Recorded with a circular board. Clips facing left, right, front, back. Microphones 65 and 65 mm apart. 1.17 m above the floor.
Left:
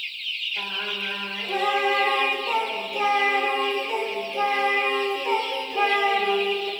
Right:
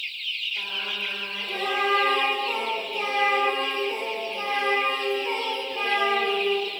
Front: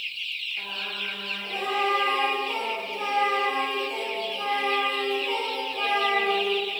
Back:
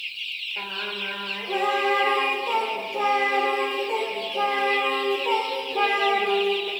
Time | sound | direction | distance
0.6 | singing | 160° left | 4.5 m